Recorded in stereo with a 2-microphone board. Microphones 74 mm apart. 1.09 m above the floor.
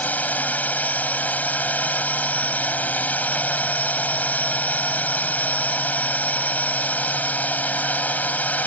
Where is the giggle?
I don't hear a giggle.